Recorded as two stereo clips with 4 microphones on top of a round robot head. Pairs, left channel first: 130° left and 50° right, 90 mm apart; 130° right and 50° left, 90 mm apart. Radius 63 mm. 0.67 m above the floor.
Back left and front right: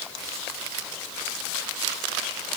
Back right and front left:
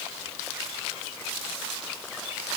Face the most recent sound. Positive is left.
No sound to turn to.